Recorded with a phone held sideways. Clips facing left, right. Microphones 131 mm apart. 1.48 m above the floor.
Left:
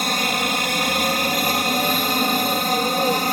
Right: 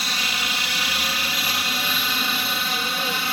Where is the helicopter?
50° left (ahead or behind); by 3.3 s 45° left (ahead or behind).